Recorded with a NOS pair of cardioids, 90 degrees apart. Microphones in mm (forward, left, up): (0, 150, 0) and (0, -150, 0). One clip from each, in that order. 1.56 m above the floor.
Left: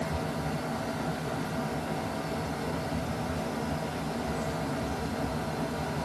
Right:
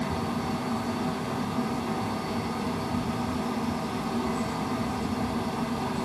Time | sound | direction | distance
0.0 | a fan | 50° right | 2 m